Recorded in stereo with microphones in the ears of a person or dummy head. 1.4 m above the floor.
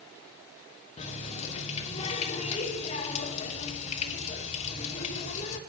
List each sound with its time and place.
1.0 s a running tap: 40° left (ahead or behind), 2.5 m